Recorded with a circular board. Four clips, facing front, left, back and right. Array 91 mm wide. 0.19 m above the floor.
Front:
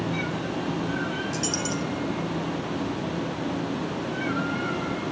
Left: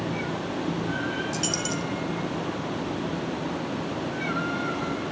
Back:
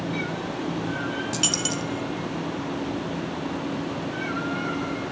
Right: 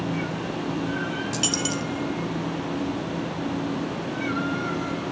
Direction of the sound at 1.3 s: 150° right.